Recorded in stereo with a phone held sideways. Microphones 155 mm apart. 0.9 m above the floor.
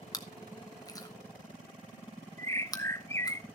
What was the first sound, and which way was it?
Chewing, 25° left (ahead or behind).